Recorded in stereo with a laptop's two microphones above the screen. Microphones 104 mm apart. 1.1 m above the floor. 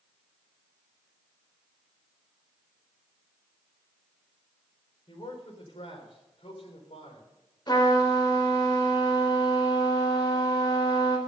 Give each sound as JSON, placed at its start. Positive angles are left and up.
{"t": 5.1, "sound": "a man speaking", "side_deg": 60, "distance_m": 4.5}
{"t": 7.7, "sound": "a trumpet", "side_deg": 45, "distance_m": 3.5}